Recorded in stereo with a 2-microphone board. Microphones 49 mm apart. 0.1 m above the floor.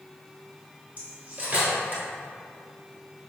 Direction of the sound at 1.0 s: 35° right (ahead or behind).